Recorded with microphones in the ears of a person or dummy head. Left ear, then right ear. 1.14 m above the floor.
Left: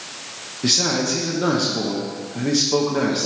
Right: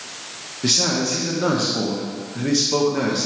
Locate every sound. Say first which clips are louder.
0.6 s a man speaking: even; centre (ahead or behind), 0.8 m